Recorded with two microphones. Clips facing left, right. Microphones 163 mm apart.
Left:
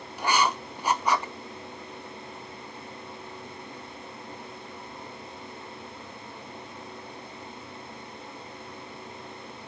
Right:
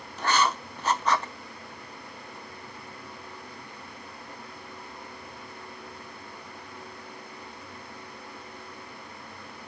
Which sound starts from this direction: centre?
Writing, at 0.2 s.